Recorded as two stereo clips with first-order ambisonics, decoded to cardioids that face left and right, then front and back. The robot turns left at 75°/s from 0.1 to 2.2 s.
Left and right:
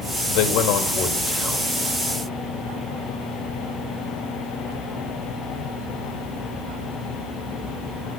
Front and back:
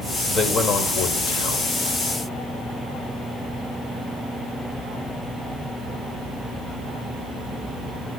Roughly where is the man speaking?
Left.